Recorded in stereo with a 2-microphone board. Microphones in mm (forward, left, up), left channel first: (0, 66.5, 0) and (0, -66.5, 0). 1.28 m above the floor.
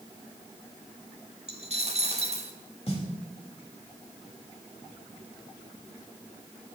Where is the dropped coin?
50° right (ahead or behind), 1.2 m.